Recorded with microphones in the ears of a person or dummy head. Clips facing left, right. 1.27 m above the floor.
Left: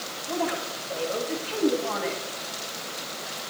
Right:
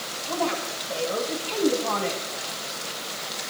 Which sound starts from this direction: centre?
A woman speaking, at 0.3 s.